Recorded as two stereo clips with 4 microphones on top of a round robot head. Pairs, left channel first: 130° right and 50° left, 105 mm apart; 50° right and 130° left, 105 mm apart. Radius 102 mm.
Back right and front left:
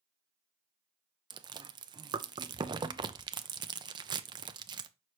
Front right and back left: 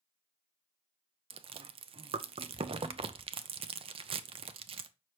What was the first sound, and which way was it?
Chewing, 100° left.